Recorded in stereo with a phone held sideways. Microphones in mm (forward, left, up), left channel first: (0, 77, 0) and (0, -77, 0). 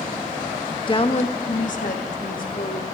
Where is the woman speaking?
35° left (ahead or behind), 0.6 m; by 2.8 s 70° left (ahead or behind), 1.6 m.